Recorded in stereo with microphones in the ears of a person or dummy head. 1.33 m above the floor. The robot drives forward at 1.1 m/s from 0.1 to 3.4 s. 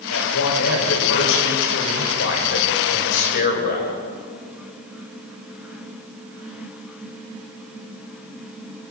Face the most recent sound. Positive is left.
turn(degrees=60)  # may be behind; listen again after turning